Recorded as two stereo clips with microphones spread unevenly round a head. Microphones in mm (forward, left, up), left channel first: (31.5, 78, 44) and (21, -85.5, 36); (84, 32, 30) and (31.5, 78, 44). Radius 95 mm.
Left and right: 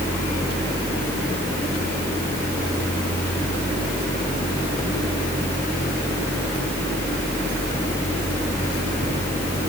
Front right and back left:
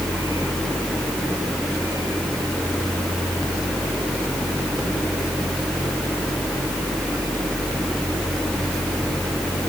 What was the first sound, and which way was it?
Only background noise.